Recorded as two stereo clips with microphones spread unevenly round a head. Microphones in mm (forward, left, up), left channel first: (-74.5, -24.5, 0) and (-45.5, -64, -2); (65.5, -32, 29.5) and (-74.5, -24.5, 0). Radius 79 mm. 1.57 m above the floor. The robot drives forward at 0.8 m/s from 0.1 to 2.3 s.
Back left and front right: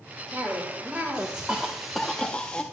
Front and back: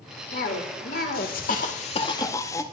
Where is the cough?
15° left, 2 m; by 2.6 s 55° left, 0.7 m.